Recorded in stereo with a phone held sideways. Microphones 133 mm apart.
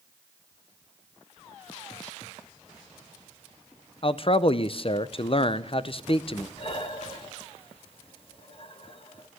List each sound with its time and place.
4.0 s a man speaking: 45° left (ahead or behind), 0.5 m
6.6 s breathing: 45° left (ahead or behind), 1.1 m